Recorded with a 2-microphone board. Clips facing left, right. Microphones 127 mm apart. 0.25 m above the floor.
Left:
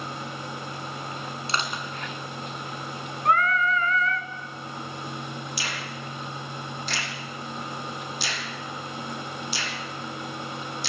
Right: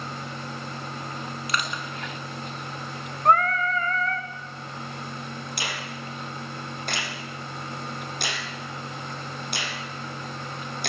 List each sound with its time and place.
1.5 s crushing: 30° left (ahead or behind), 3 m
3.2 s singing: 40° right (ahead or behind), 1.7 m
5.6 s a finger snap: 55° right (ahead or behind), 7 m